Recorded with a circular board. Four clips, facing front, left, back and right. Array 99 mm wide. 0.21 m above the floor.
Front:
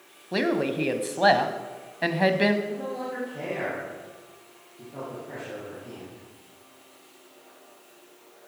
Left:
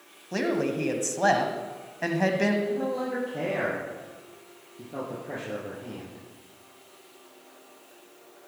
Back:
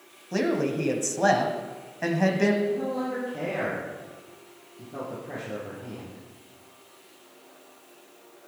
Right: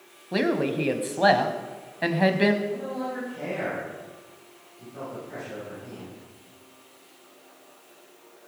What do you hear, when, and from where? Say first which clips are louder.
0.3 s a woman speaking: right 2 dB, even; 35° right, 1.0 m
2.6 s a man speaking: left 2 dB, back 4 dB; 95° left, 5.5 m